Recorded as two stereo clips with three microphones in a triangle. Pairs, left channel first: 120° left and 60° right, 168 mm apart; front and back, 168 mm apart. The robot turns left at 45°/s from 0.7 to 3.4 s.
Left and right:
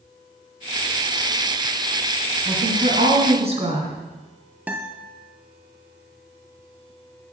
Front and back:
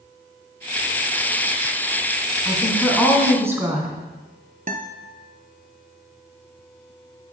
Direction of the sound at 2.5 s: 65° right.